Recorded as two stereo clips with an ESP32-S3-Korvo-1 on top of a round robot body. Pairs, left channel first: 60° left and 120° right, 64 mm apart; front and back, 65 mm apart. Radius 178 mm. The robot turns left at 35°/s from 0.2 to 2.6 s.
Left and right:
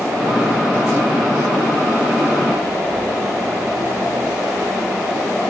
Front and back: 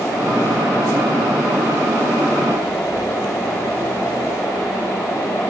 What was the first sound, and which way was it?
Only background noise.